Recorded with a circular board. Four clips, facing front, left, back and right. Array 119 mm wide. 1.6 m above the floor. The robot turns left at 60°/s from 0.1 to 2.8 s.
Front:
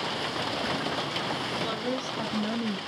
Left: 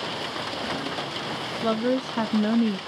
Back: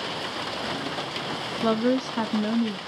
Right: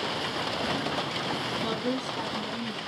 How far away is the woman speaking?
About 0.6 m.